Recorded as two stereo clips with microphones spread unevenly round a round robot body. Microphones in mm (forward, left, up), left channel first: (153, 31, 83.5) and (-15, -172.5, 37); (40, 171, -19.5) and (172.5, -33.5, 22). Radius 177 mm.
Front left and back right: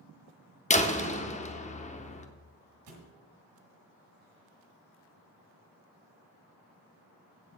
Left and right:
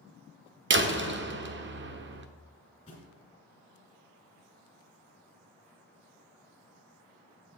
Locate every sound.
0.7 s a door slam: 15° right, 0.9 m
2.9 s a thud: 160° right, 1.5 m